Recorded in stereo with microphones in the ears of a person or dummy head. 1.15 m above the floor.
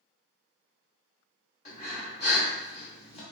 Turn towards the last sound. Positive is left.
turn(degrees=40)  # may be behind; listen again after turning